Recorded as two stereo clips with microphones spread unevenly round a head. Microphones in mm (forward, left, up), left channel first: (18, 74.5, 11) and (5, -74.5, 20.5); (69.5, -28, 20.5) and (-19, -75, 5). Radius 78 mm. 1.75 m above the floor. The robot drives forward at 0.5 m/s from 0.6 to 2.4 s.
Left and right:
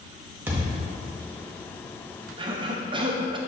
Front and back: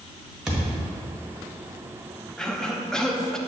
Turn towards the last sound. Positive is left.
turn(degrees=-45)